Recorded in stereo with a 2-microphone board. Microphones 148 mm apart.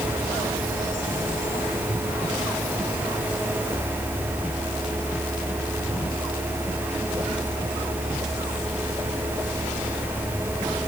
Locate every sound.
Only background noise.